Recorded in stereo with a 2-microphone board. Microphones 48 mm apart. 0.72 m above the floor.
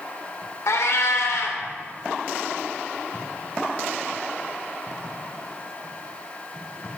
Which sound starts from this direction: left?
A cat meowing, at 0.7 s.